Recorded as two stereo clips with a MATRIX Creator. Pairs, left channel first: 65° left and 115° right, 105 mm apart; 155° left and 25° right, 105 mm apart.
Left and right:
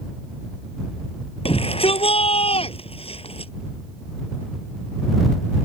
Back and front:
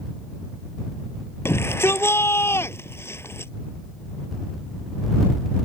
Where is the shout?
90° left.